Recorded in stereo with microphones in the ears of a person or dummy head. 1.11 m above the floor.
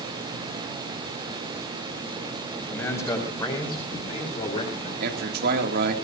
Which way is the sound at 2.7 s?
15° left (ahead or behind).